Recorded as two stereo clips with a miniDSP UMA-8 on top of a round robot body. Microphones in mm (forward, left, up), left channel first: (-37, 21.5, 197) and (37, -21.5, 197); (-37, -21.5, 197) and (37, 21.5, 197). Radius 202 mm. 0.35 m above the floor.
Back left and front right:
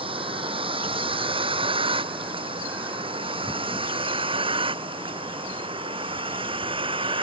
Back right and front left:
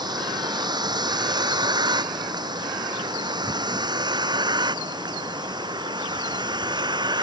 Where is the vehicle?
10° right; by 7.2 s 5° right.